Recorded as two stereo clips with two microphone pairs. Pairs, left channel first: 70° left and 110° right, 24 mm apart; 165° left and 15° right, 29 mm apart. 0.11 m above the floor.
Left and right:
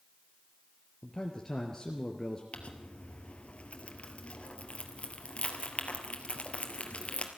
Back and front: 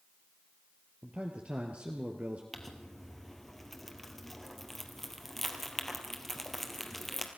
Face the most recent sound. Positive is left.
turn(degrees=85)